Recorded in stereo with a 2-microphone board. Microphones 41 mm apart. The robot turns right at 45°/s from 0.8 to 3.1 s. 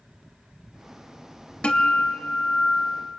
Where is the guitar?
25° left (ahead or behind), 1.1 m; by 3.1 s 10° left (ahead or behind), 1.1 m.